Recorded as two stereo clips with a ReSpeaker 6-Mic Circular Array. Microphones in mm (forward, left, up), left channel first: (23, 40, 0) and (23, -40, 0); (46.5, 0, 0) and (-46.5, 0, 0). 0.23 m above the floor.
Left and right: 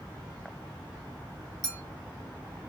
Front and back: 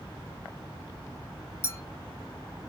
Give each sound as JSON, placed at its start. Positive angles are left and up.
{"t": 1.6, "sound": "a clink", "azimuth_deg": 25, "distance_m": 1.0}